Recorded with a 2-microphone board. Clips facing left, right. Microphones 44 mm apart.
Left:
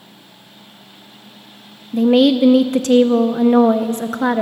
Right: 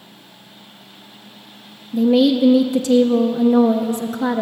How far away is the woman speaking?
About 0.5 m.